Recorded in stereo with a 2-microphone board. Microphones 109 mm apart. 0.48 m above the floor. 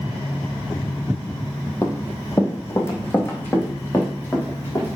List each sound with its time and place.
1.8 s running footsteps: 30° left (ahead or behind), 1.0 m; by 5.0 s 20° left (ahead or behind), 3.5 m